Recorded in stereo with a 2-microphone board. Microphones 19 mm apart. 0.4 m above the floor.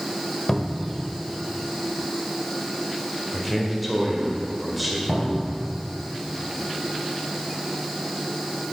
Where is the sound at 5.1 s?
65° left (ahead or behind), 2.5 m.